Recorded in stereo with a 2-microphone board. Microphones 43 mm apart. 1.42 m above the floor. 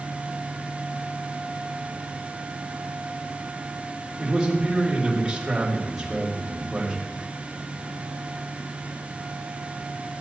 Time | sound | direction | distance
4.2 | a man speaking | 5° right (ahead or behind) | 4 m